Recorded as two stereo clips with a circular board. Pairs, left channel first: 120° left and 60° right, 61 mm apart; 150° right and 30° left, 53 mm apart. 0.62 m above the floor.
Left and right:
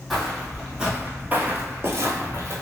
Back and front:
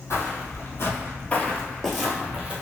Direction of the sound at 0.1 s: 150° right.